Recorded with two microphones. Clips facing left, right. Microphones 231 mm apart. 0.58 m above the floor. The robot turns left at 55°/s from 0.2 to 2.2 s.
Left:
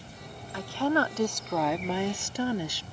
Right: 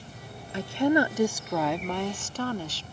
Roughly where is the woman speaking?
Right.